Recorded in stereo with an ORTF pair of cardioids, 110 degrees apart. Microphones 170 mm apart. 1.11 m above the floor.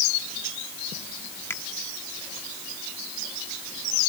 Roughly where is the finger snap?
Ahead.